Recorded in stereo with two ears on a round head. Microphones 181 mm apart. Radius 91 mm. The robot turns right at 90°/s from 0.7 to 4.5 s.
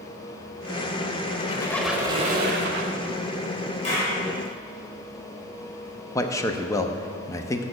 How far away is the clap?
About 3 m.